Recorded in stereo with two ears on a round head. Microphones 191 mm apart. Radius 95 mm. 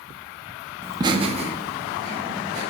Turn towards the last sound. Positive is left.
turn(degrees=-30)  # may be behind; listen again after turning